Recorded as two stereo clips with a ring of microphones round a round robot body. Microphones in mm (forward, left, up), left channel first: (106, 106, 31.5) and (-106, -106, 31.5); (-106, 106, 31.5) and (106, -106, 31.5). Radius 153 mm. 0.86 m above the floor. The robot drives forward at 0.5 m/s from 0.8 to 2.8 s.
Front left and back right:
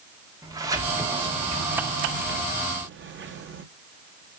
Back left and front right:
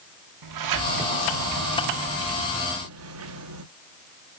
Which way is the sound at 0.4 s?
55° right.